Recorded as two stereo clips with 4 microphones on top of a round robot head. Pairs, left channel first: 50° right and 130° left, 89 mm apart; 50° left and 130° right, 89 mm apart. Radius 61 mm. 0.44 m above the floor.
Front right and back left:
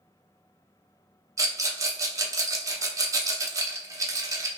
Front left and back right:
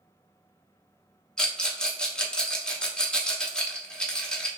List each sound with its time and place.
1.4 s a rattle: 125° left, 1.1 m